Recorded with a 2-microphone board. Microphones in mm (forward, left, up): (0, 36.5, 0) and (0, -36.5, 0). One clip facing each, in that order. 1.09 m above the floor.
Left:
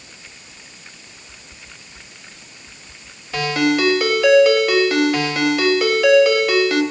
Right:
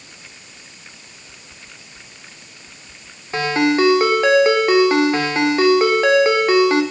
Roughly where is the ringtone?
Right.